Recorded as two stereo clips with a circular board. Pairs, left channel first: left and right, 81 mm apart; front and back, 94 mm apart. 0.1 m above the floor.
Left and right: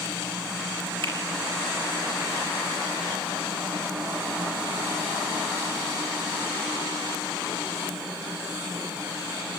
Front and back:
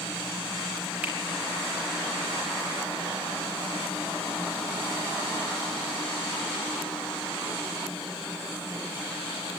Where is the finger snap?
105° right, 4 m.